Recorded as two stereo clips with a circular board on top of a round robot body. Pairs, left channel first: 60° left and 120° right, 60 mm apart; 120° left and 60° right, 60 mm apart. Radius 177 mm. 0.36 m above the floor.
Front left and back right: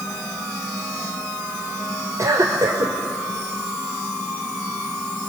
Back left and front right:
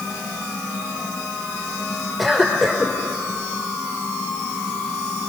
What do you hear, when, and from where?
2.2 s a cough: 150° right, 1.8 m